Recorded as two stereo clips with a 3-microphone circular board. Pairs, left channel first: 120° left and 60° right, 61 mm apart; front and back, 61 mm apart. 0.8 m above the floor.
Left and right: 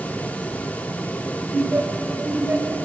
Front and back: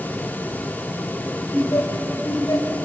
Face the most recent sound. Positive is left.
turn(degrees=-5)